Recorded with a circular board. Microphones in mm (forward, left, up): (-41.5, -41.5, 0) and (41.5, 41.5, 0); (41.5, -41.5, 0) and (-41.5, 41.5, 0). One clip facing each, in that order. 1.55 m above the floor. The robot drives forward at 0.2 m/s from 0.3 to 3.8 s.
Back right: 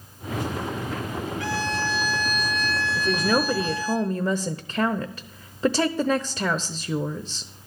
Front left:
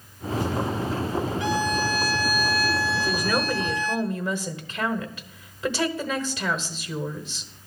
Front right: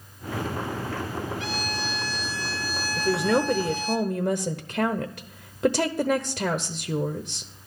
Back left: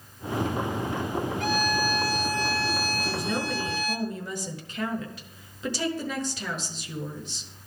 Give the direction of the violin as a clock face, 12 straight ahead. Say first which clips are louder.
Front left 1 dB, back left 5 dB; 8 o'clock.